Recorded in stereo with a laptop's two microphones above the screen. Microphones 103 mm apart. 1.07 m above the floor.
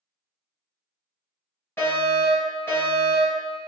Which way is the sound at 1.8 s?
20° left (ahead or behind).